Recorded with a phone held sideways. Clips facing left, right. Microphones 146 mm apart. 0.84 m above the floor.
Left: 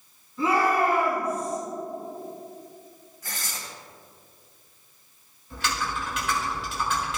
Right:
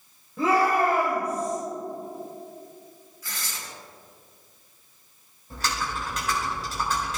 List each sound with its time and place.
0.4 s a shout: 75° right (ahead or behind), 3.5 m; by 1.6 s 70° right (ahead or behind), 4.5 m
3.2 s tearing paper: 45° left (ahead or behind), 2.5 m
5.5 s typing on a keyboard: 40° right (ahead or behind), 4 m